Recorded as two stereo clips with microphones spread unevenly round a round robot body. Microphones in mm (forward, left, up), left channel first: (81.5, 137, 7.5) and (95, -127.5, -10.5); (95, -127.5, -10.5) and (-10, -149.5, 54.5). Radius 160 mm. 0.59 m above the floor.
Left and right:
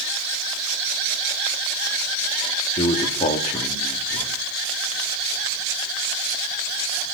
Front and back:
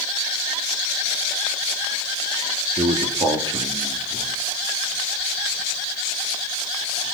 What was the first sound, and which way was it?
A man speaking, 120° left.